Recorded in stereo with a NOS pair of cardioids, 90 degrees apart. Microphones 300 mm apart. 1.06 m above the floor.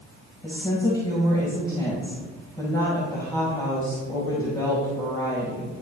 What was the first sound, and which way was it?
A woman speaking, 15° left.